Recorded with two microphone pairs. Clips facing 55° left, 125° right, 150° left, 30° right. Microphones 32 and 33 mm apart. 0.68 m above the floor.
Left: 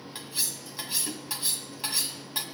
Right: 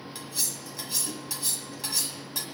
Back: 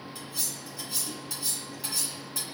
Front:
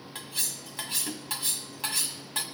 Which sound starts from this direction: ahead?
Cutlery clinking, at 0.1 s.